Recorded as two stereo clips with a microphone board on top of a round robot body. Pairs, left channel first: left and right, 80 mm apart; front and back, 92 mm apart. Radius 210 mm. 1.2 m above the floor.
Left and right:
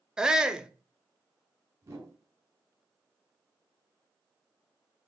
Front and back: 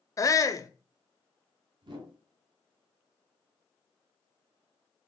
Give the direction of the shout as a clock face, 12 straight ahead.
12 o'clock.